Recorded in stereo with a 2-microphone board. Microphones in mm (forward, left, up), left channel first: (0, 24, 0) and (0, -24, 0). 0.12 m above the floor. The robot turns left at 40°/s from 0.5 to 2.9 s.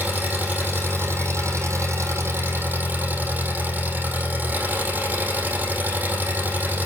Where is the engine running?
40° right, 4.5 m; by 6.9 s 135° right, 4.5 m.